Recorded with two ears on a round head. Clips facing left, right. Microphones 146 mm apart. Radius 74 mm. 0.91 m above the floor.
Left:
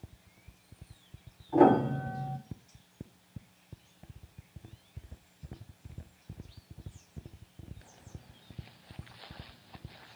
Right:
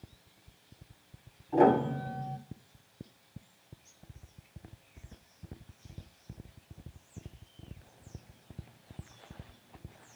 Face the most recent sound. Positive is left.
turn(degrees=-15)  # may be behind; listen again after turning